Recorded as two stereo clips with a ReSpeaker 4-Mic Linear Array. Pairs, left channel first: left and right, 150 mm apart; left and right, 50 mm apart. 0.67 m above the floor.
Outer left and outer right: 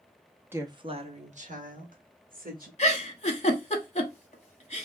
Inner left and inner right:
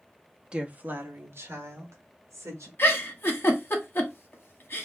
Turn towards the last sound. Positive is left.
turn(degrees=45)  # may be behind; listen again after turning